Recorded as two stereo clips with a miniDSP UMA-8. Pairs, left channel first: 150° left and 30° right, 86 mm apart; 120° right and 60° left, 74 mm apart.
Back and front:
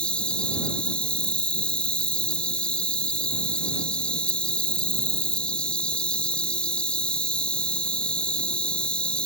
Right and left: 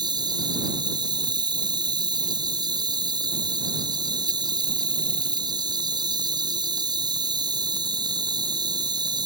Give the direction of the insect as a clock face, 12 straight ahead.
10 o'clock.